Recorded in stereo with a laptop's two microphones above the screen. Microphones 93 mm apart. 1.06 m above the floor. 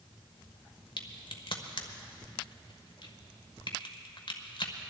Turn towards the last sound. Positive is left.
turn(degrees=60)  # may be behind; listen again after turning